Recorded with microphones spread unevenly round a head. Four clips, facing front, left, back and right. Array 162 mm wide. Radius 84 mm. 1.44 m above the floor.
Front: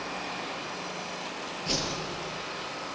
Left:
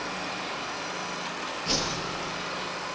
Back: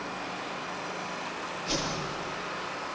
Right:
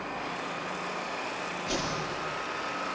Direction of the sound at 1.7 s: 40° left.